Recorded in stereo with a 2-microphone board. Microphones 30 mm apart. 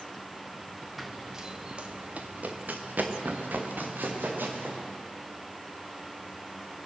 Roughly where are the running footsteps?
Centre.